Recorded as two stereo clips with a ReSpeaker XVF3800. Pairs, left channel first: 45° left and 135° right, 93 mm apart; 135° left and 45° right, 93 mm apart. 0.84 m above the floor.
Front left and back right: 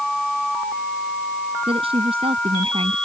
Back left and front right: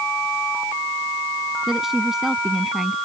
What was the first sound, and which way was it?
A woman speaking, 130° right.